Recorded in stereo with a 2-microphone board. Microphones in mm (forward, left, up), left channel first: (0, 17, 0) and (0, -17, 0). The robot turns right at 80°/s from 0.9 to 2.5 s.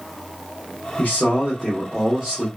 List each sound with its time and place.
1.0 s a man speaking: 105° left, 1.0 m; by 2.5 s 135° right, 1.0 m